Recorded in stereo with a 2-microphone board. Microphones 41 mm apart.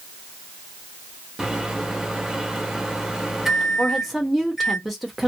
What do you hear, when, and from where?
1.4 s a microwave: 10° right (ahead or behind), 0.7 m
3.8 s a woman speaking: centre (ahead or behind), 0.8 m